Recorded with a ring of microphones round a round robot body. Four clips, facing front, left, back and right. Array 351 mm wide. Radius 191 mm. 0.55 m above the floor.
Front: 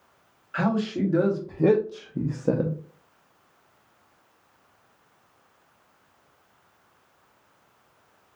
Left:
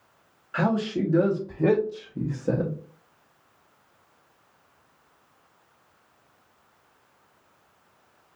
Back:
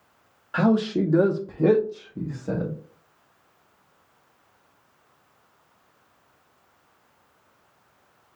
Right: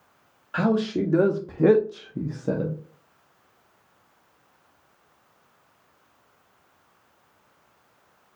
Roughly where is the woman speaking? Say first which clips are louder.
Right 2 dB, back 4 dB; behind right.